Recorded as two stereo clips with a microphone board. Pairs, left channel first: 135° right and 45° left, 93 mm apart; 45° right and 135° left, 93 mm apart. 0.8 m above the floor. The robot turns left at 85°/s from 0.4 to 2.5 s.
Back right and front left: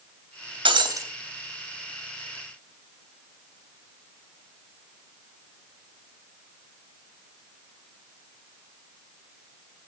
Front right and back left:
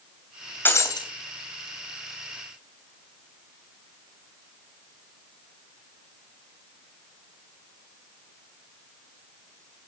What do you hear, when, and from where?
0.7 s breaking glass: 25° left, 3 m; by 1.1 s 15° right, 3 m